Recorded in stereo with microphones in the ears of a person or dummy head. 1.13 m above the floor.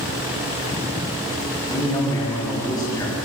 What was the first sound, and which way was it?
A man speaking, 25° left (ahead or behind).